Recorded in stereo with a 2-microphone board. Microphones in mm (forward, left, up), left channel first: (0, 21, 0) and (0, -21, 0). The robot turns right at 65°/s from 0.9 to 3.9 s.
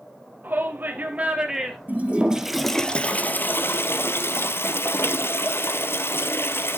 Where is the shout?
50° right, 2.5 m; by 1.8 s 5° left, 2.5 m.